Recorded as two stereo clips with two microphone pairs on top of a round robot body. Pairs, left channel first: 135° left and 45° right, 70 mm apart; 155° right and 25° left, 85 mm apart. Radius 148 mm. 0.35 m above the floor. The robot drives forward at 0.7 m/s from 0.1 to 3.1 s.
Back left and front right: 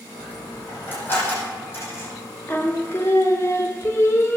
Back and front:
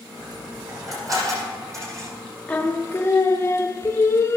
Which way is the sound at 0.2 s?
70° left.